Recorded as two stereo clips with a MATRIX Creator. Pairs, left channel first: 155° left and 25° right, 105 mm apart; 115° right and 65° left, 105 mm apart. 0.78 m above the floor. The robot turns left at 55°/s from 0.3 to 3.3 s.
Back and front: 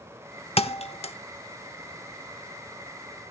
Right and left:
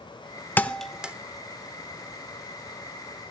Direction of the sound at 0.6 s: 175° left.